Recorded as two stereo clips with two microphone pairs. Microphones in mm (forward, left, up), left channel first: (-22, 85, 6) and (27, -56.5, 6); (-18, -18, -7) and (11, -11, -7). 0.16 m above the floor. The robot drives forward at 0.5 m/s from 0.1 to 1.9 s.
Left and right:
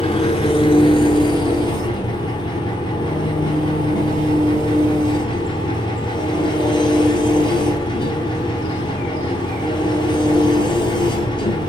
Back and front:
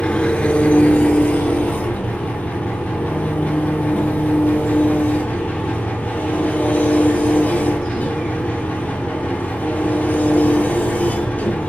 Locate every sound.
0.0 s an engine running: 150° left, 0.8 m; by 11.7 s 165° left, 1.6 m